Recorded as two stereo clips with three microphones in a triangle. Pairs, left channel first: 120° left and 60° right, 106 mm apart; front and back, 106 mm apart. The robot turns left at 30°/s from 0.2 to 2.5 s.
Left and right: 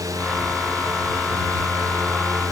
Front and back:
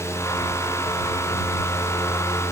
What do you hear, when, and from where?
Only background noise.